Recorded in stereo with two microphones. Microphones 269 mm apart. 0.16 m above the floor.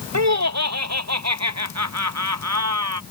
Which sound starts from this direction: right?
Laughter, at 0.1 s.